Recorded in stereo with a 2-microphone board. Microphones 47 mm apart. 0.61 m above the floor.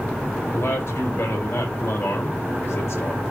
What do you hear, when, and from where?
0.5 s a man speaking: 50° left (ahead or behind), 3.5 m